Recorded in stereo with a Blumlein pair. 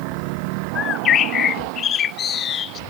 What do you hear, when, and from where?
0.8 s a bird: 30° left